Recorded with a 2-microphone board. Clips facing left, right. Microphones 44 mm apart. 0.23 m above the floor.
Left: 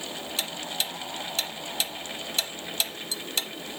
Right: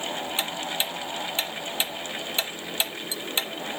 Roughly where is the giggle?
I don't hear a giggle.